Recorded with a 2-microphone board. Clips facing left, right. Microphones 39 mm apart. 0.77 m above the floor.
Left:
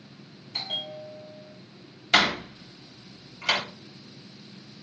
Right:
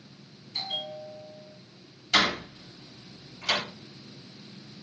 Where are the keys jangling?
I don't hear keys jangling.